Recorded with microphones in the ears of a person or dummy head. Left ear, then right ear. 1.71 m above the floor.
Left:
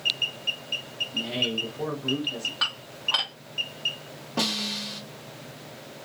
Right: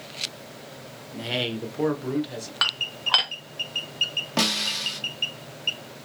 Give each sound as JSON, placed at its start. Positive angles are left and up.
{"t": 1.1, "sound": "a man speaking", "side_deg": -60, "distance_m": 1.2}
{"t": 2.6, "sound": "dishes clattering", "side_deg": -20, "distance_m": 0.8}
{"t": 4.4, "sound": "a snare drum", "side_deg": -55, "distance_m": 1.2}